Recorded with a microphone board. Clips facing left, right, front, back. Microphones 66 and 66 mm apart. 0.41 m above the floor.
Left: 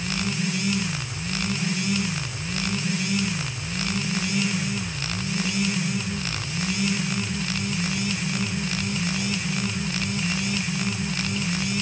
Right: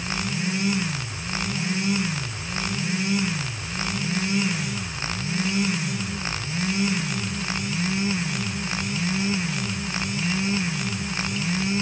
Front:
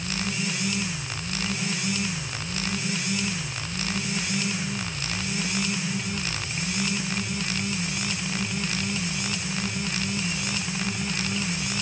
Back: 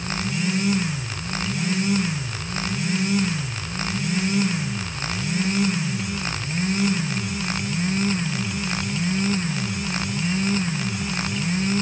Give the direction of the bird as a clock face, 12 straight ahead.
No bird in this recording.